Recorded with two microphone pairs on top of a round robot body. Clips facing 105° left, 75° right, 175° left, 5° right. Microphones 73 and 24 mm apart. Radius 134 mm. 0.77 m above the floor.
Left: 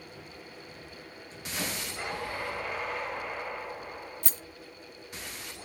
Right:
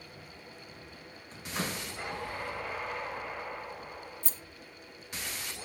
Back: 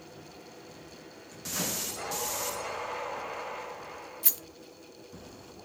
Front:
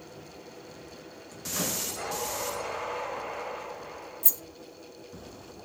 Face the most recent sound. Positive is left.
turn(degrees=135)